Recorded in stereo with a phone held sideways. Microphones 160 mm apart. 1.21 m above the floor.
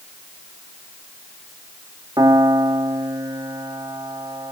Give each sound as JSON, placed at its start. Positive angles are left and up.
{"t": 2.2, "sound": "a piano", "side_deg": -30, "distance_m": 2.0}